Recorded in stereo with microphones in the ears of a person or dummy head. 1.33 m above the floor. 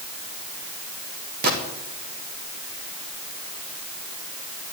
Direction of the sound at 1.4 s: 50° right (ahead or behind).